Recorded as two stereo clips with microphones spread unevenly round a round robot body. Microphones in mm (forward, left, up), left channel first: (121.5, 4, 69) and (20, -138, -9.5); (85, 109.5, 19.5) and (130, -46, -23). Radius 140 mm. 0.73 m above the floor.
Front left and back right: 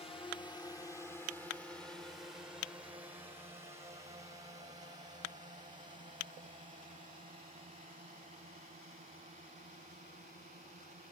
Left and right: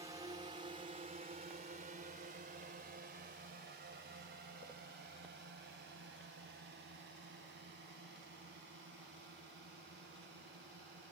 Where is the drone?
15° right; by 11.1 s 80° right.